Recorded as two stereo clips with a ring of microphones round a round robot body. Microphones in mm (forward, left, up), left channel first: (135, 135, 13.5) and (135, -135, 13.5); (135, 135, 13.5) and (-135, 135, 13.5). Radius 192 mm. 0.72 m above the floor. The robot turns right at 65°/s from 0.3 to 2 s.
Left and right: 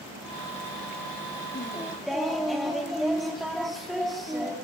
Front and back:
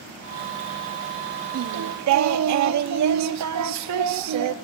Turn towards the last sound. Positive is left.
turn(degrees=180)